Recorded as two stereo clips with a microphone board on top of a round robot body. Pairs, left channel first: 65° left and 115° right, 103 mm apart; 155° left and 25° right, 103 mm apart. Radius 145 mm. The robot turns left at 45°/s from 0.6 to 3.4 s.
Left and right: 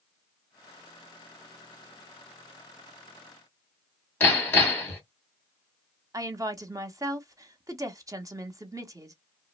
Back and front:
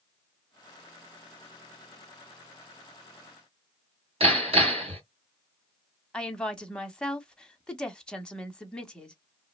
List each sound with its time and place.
4.2 s hammering: 5° right, 1.9 m
6.1 s a woman speaking: 130° right, 1.0 m